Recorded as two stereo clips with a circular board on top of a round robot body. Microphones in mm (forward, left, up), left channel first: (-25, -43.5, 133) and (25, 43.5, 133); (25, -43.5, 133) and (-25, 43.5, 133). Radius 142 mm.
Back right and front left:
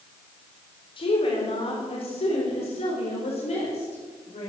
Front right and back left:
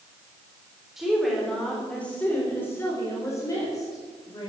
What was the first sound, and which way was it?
A woman speaking, 155° right.